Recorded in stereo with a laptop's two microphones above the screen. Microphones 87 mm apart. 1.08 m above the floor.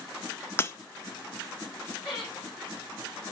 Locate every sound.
0.6 s breaking glass: 30° left (ahead or behind), 0.6 m
2.0 s laughter: 5° left (ahead or behind), 4.5 m